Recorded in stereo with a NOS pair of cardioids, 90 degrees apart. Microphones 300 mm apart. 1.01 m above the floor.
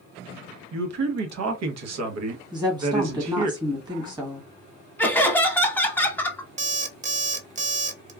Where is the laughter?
5° left, 1.1 m.